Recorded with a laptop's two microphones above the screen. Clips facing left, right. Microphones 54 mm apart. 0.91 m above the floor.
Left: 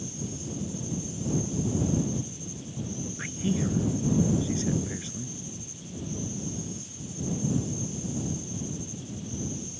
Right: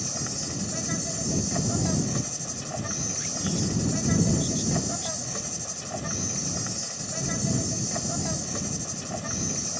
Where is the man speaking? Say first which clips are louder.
Left 2 dB; 30° left (ahead or behind).